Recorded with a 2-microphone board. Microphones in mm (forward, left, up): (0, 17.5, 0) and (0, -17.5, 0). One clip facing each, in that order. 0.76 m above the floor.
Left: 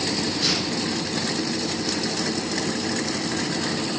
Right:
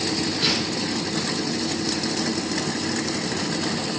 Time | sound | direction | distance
0.4 | tearing paper | 35° right (ahead or behind) | 2.5 m